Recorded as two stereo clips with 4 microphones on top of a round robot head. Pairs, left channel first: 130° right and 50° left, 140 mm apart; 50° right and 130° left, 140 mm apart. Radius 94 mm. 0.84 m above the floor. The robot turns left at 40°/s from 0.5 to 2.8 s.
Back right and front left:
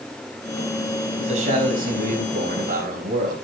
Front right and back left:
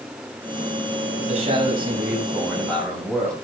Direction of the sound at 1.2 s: 95° left.